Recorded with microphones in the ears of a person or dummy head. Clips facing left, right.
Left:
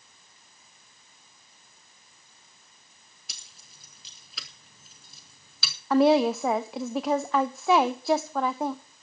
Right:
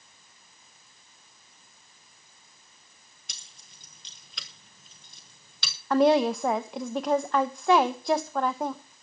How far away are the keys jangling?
About 0.7 m.